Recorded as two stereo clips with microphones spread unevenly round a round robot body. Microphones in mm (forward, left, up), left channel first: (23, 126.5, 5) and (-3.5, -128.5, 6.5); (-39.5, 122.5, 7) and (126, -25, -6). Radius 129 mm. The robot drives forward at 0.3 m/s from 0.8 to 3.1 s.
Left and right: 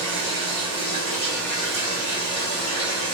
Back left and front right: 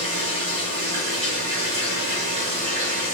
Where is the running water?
75° right, 2.0 m; by 3.2 s 100° right, 1.9 m.